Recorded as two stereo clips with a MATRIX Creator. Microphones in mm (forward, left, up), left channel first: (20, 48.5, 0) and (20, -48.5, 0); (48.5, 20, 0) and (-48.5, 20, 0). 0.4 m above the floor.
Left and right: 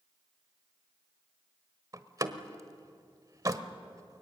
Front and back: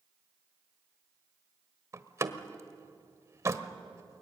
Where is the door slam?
130° right, 1.3 m.